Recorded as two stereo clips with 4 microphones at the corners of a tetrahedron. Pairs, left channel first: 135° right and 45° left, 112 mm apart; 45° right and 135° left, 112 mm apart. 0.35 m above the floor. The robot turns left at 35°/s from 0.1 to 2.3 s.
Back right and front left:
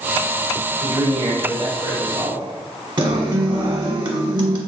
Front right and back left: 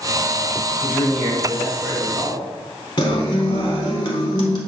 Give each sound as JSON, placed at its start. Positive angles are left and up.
{"t": 0.8, "sound": "a man speaking", "azimuth_deg": 80, "distance_m": 1.6}
{"t": 3.0, "sound": "a guitar", "azimuth_deg": 0, "distance_m": 0.8}